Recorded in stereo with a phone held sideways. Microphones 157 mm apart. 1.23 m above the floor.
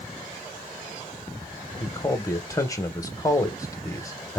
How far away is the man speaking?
About 0.6 m.